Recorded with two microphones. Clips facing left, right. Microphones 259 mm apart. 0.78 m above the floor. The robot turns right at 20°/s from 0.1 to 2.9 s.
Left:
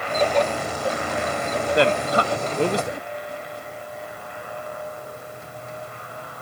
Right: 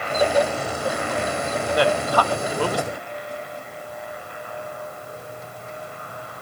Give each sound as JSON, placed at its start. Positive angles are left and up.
{"t": 1.8, "sound": "a man speaking", "side_deg": 25, "distance_m": 0.5}